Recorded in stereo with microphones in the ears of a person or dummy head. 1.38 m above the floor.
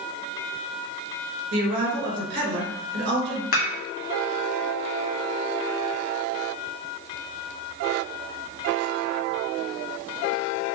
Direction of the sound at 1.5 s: 60° right (ahead or behind).